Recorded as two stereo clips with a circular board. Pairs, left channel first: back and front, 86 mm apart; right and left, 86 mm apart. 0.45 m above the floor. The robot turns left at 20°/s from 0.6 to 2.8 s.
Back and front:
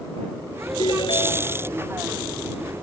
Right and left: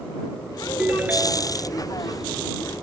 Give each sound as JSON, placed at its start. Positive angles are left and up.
{"t": 0.8, "sound": "a ringtone", "azimuth_deg": 165}